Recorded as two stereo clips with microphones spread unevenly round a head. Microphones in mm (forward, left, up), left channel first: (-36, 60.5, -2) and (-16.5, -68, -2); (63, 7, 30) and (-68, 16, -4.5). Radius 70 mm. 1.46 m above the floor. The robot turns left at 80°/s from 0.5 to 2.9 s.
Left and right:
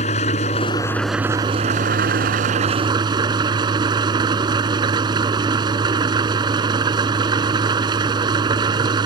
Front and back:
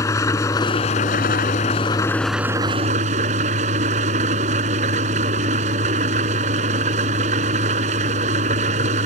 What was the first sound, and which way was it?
An engine running, 55° left.